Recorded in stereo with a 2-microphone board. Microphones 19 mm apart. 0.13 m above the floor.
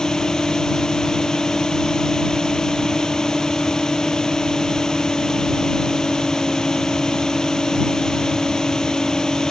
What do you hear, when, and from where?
0.0 s a drone: 50° left (ahead or behind)